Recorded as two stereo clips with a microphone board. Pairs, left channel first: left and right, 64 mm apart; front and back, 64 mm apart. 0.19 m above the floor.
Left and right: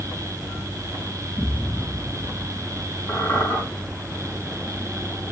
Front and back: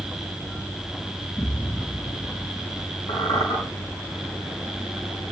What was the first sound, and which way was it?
An explosion, 45° left.